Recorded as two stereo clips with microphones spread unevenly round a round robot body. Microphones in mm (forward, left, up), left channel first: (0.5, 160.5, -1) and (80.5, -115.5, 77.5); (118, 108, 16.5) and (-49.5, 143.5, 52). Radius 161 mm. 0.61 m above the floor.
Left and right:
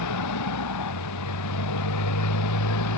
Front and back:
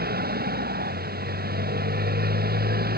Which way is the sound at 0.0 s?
140° left.